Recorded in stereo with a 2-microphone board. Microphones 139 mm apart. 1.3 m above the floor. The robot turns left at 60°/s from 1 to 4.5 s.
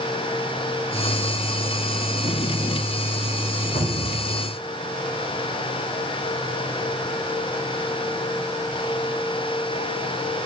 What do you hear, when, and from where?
3.8 s a cupboard door: 70° left (ahead or behind), 1.9 m; by 4.2 s 55° left (ahead or behind), 1.9 m